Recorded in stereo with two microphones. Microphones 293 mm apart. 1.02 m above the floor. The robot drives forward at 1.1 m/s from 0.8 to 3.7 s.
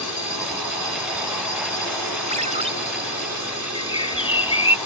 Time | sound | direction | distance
0.0 | a drone | 70° left (ahead or behind) | ?
2.3 | a ringtone | 25° right (ahead or behind) | ?
3.8 | a bird | 15° left (ahead or behind) | ?